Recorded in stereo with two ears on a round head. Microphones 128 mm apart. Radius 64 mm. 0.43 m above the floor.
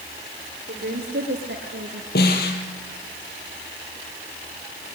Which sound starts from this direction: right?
A woman speaking, at 0.7 s.